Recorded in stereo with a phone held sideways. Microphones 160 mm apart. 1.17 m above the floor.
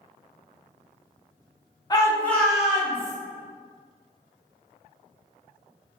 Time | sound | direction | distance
1.9 | a shout | 25° left (ahead or behind) | 0.7 m